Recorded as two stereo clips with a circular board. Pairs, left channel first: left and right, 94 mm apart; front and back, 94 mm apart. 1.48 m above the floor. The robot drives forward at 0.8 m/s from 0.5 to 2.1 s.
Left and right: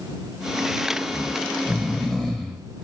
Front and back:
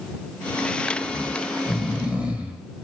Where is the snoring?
10° left, 1.3 m; by 2.6 s 160° left, 1.2 m.